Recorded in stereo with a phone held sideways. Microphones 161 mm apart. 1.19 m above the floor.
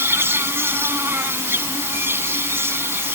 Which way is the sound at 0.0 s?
15° right (ahead or behind).